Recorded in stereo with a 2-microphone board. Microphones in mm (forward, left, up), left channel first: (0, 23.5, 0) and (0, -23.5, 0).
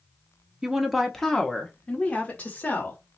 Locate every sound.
0.6 s a woman speaking: 15° right (ahead or behind), 0.7 m; by 3.0 s 35° left (ahead or behind), 1.6 m